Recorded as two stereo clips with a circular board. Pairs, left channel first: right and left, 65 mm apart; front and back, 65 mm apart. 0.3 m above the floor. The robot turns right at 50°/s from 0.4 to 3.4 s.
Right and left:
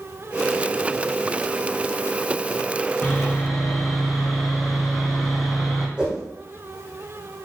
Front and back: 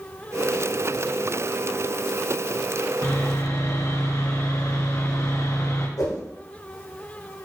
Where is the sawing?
20° right, 2.5 m; by 5.9 s straight ahead, 2.5 m.